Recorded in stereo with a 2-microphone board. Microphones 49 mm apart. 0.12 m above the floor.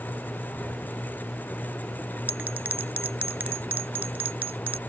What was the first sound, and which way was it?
A bell, 35° right (ahead or behind).